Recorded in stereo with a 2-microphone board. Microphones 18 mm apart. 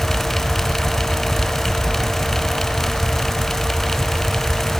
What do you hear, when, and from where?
Only background noise.